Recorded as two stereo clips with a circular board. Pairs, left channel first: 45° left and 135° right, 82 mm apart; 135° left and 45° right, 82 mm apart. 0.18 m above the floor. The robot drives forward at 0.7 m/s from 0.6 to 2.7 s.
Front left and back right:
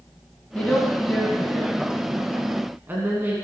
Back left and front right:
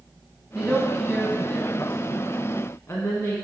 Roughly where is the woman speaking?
Ahead left.